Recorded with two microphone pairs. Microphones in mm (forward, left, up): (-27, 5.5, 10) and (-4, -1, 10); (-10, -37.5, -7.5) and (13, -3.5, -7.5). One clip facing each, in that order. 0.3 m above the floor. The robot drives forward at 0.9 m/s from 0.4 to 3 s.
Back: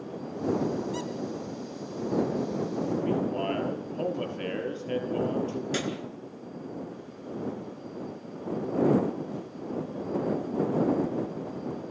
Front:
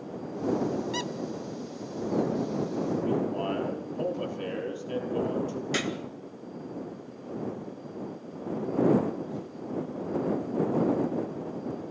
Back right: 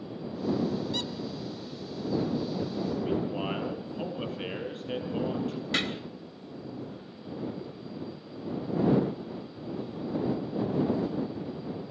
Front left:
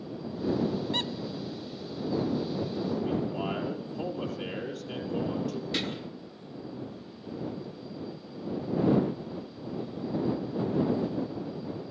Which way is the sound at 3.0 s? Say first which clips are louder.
Even, even; 175° left.